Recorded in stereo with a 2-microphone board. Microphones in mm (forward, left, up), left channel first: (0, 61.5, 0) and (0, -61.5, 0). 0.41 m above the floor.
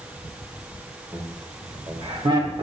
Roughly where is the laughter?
Centre.